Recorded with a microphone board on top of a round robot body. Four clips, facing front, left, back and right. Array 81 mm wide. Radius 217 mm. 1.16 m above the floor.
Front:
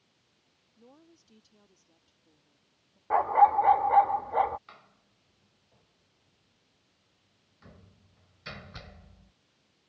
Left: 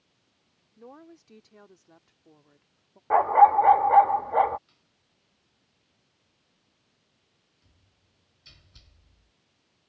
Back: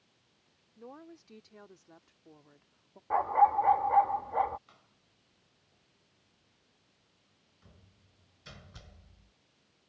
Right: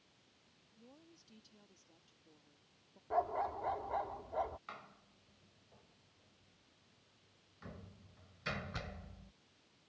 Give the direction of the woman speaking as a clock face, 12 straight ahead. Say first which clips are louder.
Left 15 dB, back 8 dB; 8 o'clock.